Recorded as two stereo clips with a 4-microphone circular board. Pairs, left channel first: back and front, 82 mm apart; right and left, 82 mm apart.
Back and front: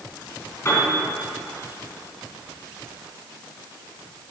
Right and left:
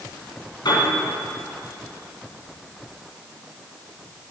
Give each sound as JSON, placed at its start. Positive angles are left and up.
{"t": 0.7, "sound": "a piano", "azimuth_deg": -125, "distance_m": 4.5}